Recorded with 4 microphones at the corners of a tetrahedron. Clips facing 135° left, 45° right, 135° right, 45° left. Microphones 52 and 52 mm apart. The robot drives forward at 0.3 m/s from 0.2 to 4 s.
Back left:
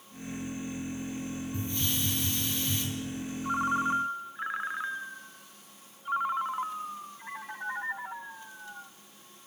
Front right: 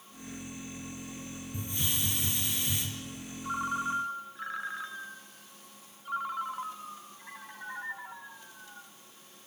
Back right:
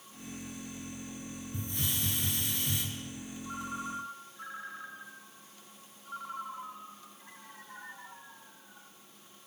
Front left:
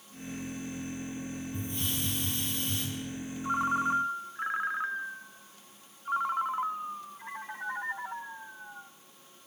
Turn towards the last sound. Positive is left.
turn(degrees=75)